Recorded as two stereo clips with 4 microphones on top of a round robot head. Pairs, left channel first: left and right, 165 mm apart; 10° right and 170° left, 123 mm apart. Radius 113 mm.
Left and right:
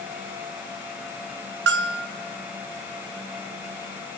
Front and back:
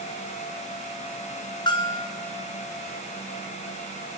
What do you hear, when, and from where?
1.7 s a bell: 70° right, 0.6 m